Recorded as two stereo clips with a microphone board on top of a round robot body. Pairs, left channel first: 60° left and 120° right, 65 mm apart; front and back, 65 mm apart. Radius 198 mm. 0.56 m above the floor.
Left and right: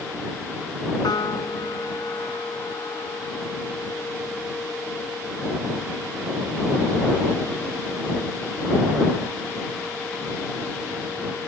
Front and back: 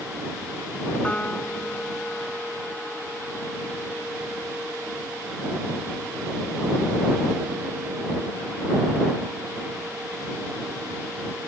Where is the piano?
70° left.